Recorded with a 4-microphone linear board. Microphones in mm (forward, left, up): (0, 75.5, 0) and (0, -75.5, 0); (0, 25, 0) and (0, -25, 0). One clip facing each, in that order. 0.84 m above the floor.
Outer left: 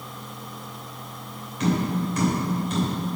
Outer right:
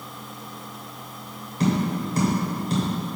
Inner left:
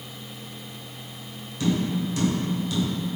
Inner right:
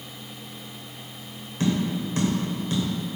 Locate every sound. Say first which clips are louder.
1.6 s tapping: outer right 1 dB, even; 35° right (ahead or behind), 2.5 m